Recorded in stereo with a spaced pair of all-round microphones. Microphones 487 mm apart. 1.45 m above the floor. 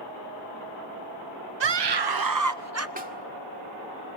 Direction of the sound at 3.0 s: 15° right (ahead or behind).